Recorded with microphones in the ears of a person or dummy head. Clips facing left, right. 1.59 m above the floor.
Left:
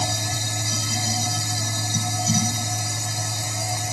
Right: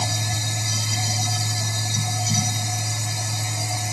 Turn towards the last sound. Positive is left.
turn(degrees=45)  # may be behind; listen again after turning